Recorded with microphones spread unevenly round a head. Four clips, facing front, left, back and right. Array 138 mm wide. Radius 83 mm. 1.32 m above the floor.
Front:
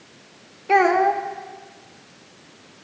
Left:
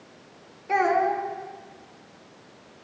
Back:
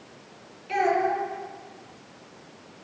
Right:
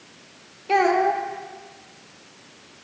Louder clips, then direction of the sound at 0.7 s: Right 3 dB, front 7 dB; 20° right.